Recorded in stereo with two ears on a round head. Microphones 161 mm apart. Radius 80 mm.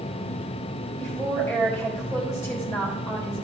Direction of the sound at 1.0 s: 20° left (ahead or behind).